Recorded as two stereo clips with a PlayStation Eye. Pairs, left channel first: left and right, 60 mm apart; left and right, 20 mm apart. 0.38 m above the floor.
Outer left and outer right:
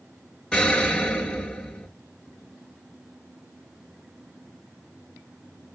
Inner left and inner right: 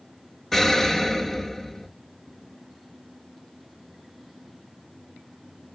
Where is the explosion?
10° left (ahead or behind), 1.6 m.